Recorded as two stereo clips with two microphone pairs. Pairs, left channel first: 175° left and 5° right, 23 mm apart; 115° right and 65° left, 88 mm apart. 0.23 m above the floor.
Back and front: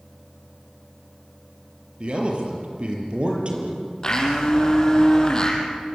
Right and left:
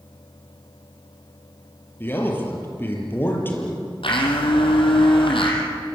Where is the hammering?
I don't hear hammering.